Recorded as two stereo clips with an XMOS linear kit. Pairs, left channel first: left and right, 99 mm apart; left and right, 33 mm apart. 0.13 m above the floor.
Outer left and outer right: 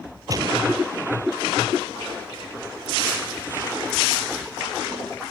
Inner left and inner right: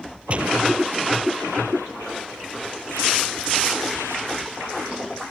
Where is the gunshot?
35° right (ahead or behind).